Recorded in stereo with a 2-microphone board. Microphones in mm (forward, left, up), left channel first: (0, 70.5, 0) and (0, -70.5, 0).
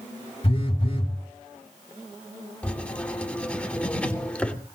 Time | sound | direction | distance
0.4 | a phone buzzing | 40° left (ahead or behind) | 2.5 m
2.6 | writing | 10° left (ahead or behind) | 2.5 m